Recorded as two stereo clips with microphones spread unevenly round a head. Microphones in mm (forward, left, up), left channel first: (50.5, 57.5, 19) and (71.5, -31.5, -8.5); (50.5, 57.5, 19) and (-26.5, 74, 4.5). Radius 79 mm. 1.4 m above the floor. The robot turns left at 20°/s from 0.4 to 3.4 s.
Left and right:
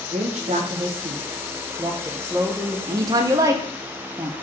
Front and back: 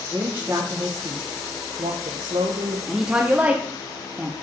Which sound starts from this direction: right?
A woman speaking, at 2.9 s.